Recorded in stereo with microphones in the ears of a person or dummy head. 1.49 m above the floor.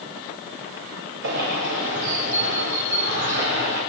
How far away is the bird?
About 4.5 m.